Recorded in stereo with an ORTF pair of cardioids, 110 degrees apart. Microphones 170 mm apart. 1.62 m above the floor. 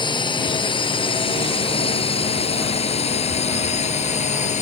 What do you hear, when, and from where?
0.0 s a drone: 25° left; by 4.6 s 45° left